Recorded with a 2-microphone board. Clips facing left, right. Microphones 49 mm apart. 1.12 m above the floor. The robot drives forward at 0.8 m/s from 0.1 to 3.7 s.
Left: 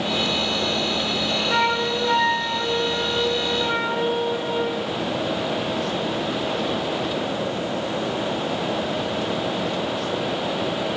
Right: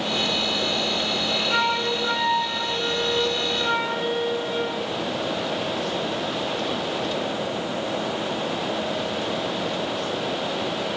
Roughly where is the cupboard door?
No cupboard door in this recording.